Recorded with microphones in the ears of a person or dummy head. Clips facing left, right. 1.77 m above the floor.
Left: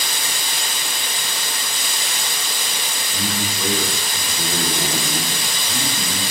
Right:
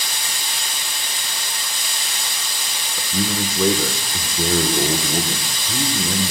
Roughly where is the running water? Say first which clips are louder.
Left 3 dB; left.